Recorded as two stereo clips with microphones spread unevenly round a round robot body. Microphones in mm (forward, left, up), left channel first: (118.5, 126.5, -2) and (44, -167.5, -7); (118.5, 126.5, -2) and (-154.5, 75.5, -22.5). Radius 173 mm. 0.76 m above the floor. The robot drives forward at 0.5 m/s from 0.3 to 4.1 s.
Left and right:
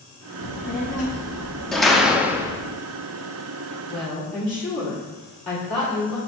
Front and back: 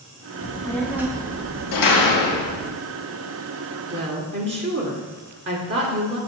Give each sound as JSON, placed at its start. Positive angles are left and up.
{"t": 0.4, "sound": "a child speaking", "azimuth_deg": 60, "distance_m": 0.6}
{"t": 1.7, "sound": "a door slam", "azimuth_deg": -15, "distance_m": 0.8}
{"t": 3.9, "sound": "a woman speaking", "azimuth_deg": 140, "distance_m": 2.0}